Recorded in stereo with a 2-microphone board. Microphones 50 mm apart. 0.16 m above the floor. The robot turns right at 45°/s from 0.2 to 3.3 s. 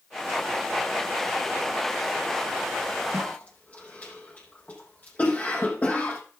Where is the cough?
25° left (ahead or behind), 6 m; by 6.2 s 30° left (ahead or behind), 6 m.